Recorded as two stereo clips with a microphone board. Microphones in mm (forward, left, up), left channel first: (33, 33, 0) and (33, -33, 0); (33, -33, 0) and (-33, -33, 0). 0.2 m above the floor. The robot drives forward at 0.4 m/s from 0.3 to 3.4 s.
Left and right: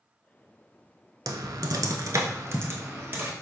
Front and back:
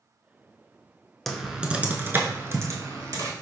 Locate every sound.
1.3 s typing on a keyboard: 85° right, 0.5 m; by 3.3 s 150° right, 0.9 m